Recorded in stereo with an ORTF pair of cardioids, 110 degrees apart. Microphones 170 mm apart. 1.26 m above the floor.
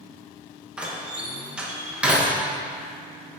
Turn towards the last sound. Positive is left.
turn(degrees=-5)